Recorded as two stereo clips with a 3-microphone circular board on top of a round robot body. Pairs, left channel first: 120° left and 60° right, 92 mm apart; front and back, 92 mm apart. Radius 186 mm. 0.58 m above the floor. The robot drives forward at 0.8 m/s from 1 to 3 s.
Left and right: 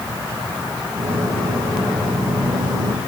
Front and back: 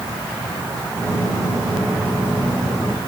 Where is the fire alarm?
No fire alarm in this recording.